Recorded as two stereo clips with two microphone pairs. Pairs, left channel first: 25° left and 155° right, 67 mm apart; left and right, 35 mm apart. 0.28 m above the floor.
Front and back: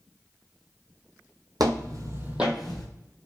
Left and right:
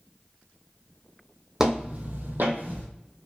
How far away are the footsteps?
About 0.8 m.